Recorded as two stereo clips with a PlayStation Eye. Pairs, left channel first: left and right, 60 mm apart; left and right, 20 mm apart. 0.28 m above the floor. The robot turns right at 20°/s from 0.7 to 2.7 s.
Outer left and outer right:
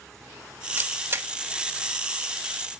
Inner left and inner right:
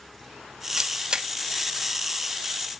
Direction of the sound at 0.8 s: 35° right (ahead or behind).